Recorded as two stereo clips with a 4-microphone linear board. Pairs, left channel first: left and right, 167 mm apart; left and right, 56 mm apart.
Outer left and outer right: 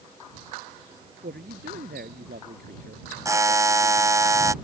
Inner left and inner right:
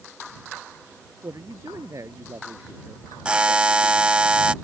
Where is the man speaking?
75° right (ahead or behind).